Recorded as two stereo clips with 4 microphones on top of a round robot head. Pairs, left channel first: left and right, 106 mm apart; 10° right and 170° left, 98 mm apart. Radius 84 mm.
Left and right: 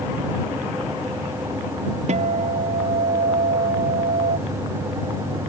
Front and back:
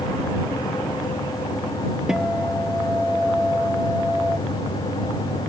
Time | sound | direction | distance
2.1 | a guitar | 105° right | ?